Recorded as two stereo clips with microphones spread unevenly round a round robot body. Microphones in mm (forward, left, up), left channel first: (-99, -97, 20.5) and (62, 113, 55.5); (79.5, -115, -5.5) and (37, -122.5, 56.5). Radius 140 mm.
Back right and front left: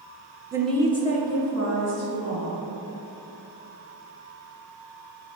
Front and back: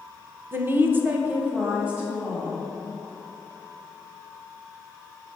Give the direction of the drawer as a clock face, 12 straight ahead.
No drawer in this recording.